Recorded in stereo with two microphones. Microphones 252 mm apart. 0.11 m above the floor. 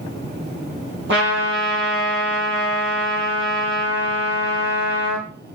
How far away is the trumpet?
About 3 m.